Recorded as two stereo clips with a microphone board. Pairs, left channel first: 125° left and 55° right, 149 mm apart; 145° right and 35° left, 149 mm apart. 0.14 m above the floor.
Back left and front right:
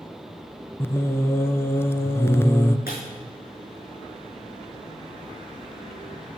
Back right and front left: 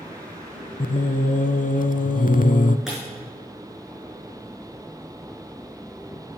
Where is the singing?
165° right, 0.5 m.